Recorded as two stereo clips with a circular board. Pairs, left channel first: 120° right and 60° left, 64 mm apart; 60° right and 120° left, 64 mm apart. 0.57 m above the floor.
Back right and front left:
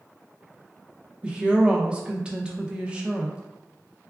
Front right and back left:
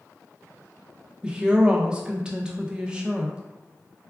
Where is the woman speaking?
85° left, 0.6 m.